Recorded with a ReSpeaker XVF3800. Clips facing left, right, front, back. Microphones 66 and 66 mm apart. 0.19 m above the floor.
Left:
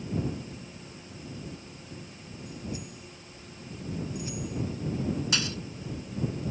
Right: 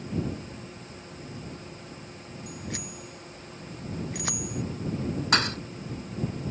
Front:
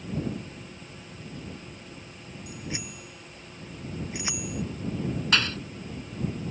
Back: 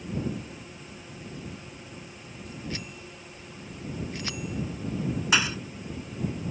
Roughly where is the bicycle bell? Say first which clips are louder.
Even, even; right.